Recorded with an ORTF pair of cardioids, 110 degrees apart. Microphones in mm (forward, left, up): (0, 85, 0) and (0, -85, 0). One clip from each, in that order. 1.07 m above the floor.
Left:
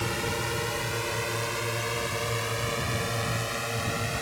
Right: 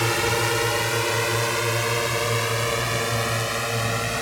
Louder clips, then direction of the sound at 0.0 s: Right 8 dB; 55° right.